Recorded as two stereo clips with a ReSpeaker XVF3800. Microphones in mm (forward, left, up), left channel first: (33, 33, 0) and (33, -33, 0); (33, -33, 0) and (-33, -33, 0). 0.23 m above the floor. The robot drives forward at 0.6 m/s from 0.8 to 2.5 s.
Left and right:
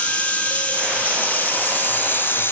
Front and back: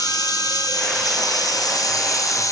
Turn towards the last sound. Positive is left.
turn(degrees=35)